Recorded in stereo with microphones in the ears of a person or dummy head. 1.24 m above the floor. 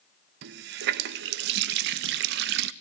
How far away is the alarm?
No alarm in this recording.